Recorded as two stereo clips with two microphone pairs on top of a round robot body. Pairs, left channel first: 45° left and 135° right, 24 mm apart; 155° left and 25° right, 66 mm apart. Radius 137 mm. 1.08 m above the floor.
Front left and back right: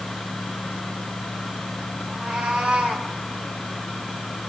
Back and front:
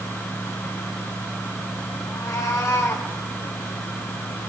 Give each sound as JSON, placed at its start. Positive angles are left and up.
{"t": 2.1, "sound": "a cat meowing", "azimuth_deg": -165, "distance_m": 5.5}